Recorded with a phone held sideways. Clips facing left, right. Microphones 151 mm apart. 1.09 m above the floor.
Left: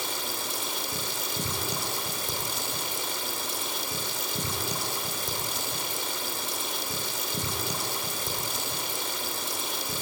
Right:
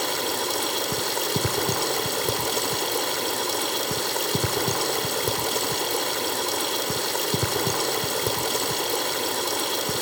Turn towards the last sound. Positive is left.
turn(degrees=-65)  # may be behind; listen again after turning